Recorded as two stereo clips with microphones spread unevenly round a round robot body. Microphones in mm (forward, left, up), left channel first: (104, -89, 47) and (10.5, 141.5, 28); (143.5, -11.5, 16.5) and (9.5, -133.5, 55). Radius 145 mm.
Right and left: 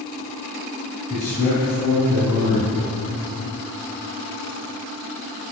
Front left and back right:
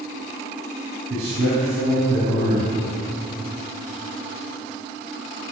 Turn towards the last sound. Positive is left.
turn(degrees=-130)